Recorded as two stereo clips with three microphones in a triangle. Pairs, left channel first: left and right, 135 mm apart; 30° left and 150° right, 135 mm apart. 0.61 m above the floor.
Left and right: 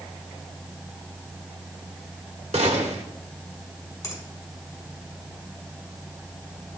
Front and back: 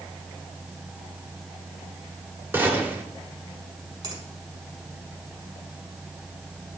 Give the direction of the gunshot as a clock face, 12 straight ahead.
3 o'clock.